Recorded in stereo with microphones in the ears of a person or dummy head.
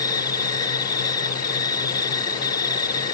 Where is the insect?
20° left (ahead or behind).